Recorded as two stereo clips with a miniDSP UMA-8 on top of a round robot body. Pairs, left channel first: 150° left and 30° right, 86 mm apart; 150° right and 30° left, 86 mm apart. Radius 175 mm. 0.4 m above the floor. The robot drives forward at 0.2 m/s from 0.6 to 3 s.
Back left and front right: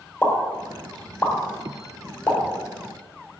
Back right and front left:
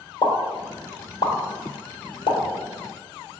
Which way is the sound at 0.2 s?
130° right.